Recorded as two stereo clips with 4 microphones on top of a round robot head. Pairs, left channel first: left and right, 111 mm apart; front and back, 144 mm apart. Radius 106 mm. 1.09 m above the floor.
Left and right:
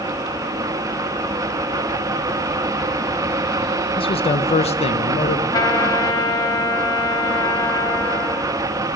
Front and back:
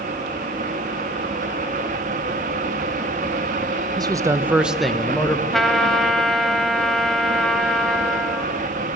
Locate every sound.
4.0 s a man speaking: 120° left, 1.2 m; by 5.4 s 70° left, 1.3 m
5.5 s a trumpet: 85° left, 0.9 m